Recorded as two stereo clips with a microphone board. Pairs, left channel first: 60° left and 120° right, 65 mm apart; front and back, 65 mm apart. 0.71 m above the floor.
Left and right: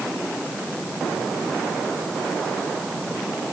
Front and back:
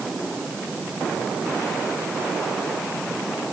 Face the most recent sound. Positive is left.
No sound to turn to.